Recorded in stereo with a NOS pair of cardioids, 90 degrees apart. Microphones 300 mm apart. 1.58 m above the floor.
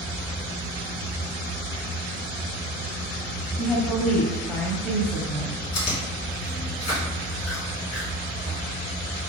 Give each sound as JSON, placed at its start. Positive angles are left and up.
{"t": 3.6, "sound": "a woman speaking", "azimuth_deg": 5, "distance_m": 1.2}
{"t": 5.7, "sound": "chewing", "azimuth_deg": 60, "distance_m": 1.8}